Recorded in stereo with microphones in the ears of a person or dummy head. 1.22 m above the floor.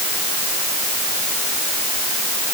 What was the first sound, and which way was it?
Only background noise.